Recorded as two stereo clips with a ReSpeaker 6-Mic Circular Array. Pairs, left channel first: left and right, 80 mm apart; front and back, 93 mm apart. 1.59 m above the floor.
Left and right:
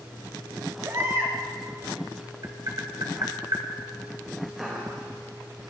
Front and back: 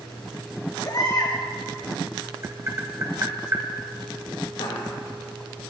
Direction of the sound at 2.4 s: 125° right.